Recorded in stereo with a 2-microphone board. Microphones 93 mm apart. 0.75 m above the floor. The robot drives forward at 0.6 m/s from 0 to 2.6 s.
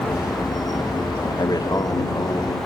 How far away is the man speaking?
About 1.7 m.